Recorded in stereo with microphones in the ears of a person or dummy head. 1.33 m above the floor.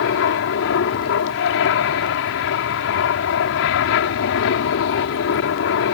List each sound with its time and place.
0.0 s an aircraft: 70° left (ahead or behind)